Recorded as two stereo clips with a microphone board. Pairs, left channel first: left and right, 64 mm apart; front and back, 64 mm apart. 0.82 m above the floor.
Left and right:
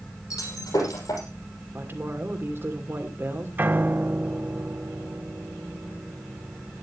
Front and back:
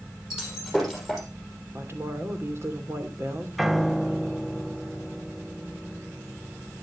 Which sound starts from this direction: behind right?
A woman speaking, at 1.7 s.